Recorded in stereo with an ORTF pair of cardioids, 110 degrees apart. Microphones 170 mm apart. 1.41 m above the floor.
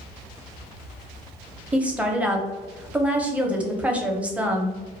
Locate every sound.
1.7 s a woman speaking: 10° right, 0.7 m